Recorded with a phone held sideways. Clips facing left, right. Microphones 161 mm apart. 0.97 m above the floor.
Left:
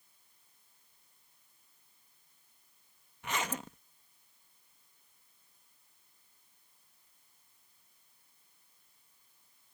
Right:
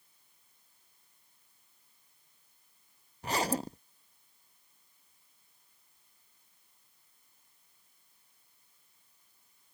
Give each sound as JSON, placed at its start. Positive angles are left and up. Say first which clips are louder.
{"t": 3.2, "sound": "a zipper", "louder": "right 6 dB", "side_deg": -35}